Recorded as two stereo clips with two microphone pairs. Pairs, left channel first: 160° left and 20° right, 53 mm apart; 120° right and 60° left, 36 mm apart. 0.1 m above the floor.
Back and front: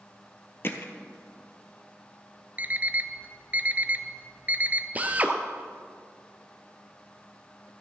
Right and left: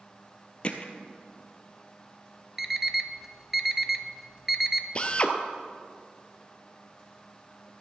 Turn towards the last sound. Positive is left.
turn(degrees=-70)